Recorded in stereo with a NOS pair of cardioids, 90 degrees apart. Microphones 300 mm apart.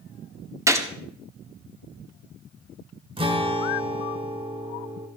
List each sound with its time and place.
0.7 s a gunshot: 10° right, 1.8 m
3.2 s a guitar: 15° right, 2.5 m